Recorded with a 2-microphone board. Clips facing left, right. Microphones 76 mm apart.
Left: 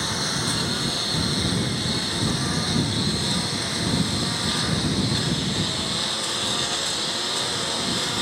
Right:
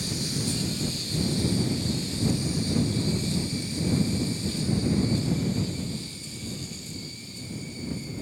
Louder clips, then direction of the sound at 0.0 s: Left 4 dB; 60° left (ahead or behind).